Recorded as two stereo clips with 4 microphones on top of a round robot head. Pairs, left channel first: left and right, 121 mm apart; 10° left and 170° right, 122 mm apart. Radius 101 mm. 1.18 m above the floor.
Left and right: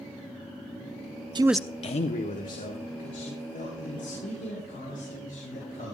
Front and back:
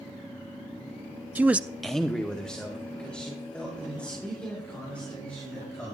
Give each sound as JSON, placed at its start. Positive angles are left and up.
{"t": 1.4, "sound": "a man speaking", "azimuth_deg": -105, "distance_m": 0.5}